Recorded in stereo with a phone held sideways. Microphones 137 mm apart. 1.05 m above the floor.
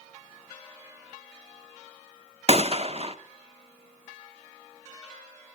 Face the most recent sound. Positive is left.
turn(degrees=-45)  # may be behind; listen again after turning